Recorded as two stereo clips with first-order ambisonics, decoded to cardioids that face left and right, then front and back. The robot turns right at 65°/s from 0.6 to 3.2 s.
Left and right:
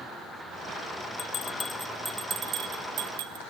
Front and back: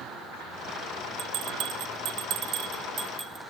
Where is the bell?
135° left, 0.5 m; by 3.4 s 95° right, 0.5 m.